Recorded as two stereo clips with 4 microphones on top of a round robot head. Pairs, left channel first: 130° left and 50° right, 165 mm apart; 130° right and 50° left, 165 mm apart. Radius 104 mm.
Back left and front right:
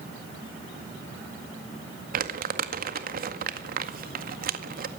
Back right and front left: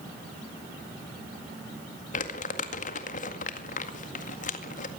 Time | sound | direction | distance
2.1 | crumpling | 85° right | 2.0 m